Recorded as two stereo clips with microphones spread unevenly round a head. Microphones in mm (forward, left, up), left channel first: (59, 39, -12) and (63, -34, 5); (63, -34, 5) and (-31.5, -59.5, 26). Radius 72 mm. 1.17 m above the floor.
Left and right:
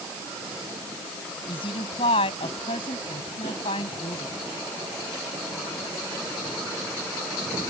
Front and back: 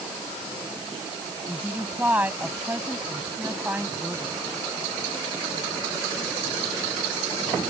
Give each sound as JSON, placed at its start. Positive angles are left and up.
{"t": 1.5, "sound": "a woman speaking", "azimuth_deg": 115}